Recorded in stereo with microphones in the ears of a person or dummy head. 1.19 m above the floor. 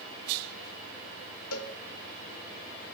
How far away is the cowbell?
About 1.4 m.